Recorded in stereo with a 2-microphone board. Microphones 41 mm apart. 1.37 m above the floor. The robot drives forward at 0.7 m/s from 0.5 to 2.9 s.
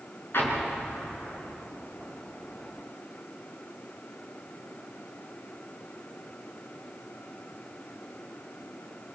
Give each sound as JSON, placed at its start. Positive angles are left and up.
{"t": 0.3, "sound": "an explosion", "side_deg": 70, "distance_m": 5.0}